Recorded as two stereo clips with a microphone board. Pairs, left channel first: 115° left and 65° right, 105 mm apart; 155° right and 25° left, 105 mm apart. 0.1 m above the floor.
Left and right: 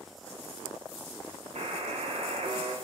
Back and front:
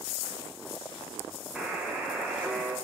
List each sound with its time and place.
1.6 s a buzzer: 60° right, 2.5 m